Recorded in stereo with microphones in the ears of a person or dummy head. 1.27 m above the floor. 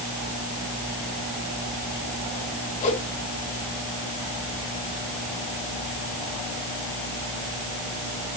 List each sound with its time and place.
2.8 s a whoosh: 35° left (ahead or behind), 1.8 m